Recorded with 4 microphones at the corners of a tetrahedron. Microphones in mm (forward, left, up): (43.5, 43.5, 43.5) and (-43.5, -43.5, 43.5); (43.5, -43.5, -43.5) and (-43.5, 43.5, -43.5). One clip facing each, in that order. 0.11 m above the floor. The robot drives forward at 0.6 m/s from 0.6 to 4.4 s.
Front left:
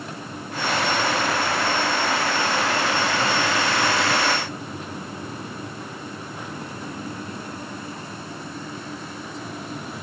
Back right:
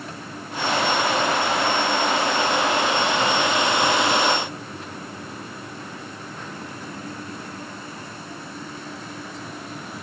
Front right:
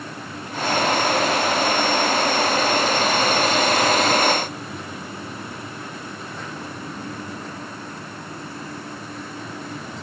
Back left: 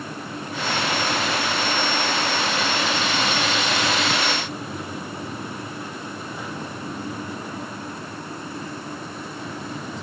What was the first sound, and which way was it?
Only background noise.